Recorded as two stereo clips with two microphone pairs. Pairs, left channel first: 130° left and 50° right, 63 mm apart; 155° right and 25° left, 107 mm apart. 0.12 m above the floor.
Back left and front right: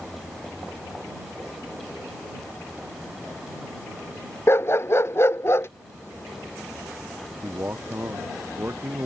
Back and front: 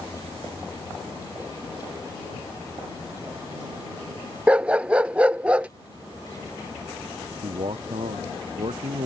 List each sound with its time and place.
4.5 s a dog barking: 95° left
7.4 s a man speaking: straight ahead